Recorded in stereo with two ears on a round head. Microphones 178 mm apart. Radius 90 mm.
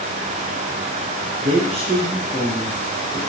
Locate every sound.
1.4 s a man speaking: 40° right (ahead or behind), 0.8 m; by 3.2 s 15° left (ahead or behind), 1.3 m